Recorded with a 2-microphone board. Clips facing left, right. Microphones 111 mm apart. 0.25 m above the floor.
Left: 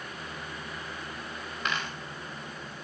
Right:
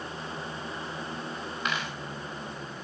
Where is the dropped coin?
10° right (ahead or behind), 4.5 m.